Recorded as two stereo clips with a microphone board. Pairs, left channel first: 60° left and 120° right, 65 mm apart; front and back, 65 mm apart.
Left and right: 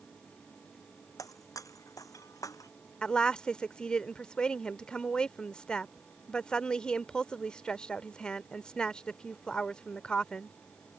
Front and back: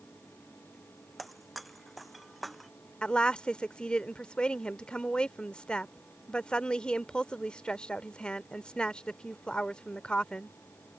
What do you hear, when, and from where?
1.2 s breaking glass: 90° left
3.0 s a woman speaking: 30° left